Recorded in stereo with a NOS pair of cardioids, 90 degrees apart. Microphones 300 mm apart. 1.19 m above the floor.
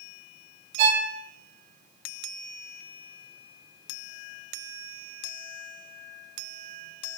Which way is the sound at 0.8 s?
70° right.